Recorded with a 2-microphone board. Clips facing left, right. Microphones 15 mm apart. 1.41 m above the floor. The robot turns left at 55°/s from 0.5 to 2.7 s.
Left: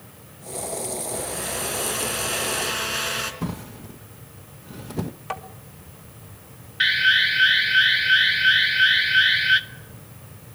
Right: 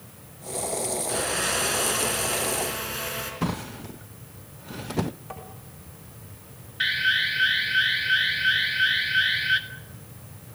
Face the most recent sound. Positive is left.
turn(degrees=20)  # may be behind; listen again after turning